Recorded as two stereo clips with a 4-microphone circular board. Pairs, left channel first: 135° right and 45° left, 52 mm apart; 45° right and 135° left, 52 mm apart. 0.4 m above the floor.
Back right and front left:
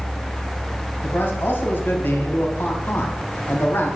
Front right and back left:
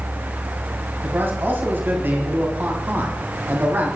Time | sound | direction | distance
1.0 | a man speaking | straight behind | 2 m